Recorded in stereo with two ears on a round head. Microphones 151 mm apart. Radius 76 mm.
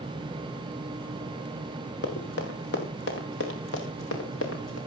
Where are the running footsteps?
70° left (ahead or behind), 4.5 m; by 4.8 s 85° left, 5 m.